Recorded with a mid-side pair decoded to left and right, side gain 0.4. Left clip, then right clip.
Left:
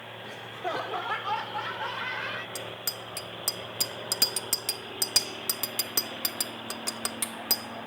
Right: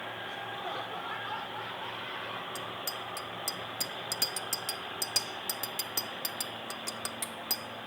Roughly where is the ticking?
No ticking in this recording.